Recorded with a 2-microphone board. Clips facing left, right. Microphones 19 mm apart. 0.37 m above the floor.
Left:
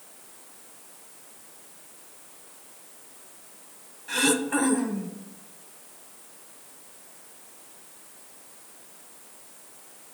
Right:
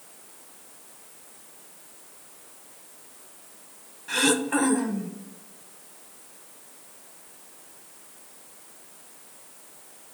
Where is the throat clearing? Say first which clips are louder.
Right 1 dB; 5° right (ahead or behind), 0.7 m.